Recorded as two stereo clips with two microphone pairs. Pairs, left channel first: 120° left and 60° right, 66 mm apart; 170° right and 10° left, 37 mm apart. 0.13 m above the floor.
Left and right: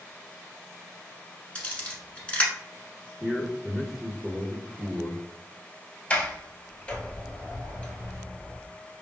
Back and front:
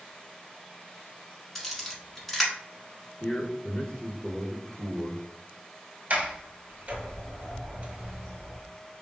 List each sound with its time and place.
1.6 s a camera shutter: 125° left, 1.0 m
3.2 s a man speaking: 135° right, 1.3 m
6.1 s a sliding door: 50° left, 0.9 m